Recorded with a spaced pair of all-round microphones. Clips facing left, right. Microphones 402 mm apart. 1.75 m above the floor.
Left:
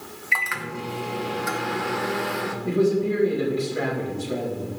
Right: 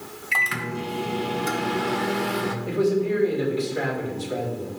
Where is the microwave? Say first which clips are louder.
Right 3 dB; 50° right (ahead or behind), 1.0 m.